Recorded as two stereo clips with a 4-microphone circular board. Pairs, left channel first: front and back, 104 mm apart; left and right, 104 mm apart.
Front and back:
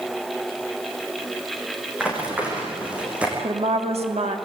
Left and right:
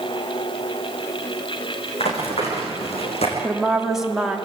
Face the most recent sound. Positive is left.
turn(degrees=-175)